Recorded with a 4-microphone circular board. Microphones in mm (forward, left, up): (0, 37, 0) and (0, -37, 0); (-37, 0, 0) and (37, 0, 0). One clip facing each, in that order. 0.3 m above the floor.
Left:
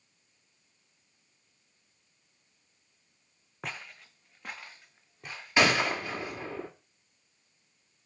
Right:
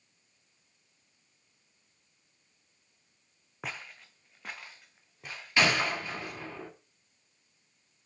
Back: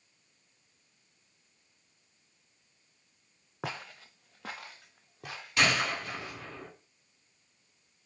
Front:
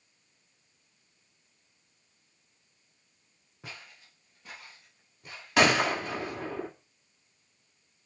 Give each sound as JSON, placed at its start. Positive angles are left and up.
{"t": 3.6, "sound": "footsteps", "azimuth_deg": 180, "distance_m": 0.8}
{"t": 5.6, "sound": "a gunshot", "azimuth_deg": 20, "distance_m": 2.5}